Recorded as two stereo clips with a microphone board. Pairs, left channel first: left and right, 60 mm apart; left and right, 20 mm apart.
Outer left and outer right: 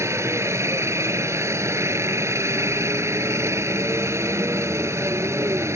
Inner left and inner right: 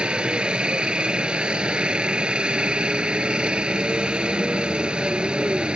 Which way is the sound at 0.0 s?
50° right (ahead or behind).